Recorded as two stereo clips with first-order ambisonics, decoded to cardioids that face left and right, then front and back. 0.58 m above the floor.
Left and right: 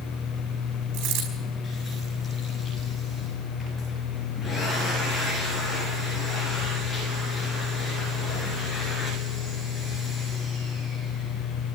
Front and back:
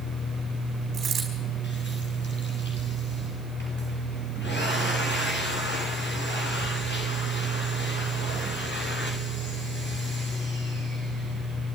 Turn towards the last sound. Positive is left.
turn(degrees=-110)